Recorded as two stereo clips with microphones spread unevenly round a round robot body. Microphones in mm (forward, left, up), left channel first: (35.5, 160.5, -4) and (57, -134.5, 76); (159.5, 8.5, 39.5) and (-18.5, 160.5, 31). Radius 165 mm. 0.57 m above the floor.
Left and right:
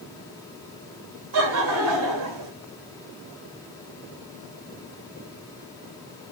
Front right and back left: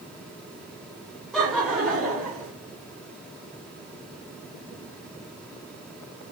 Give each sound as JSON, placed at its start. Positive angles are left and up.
{"t": 1.3, "sound": "laughter", "azimuth_deg": -135, "distance_m": 1.3}